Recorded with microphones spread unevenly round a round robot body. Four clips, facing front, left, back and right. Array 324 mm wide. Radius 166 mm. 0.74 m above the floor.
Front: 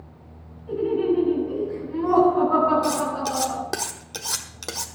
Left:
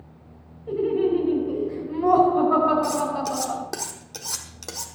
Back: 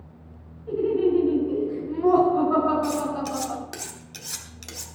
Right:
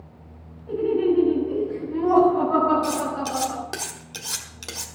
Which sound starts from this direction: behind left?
Laughter, at 0.7 s.